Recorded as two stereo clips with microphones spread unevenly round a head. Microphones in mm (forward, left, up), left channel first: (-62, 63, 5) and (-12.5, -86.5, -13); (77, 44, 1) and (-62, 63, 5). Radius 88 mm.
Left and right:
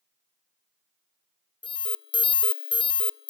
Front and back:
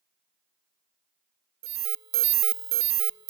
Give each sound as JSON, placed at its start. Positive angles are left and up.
{"t": 1.6, "sound": "an alarm", "azimuth_deg": 165, "distance_m": 0.6}